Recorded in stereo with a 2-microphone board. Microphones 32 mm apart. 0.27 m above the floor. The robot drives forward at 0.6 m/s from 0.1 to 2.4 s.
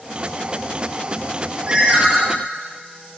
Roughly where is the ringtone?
Centre.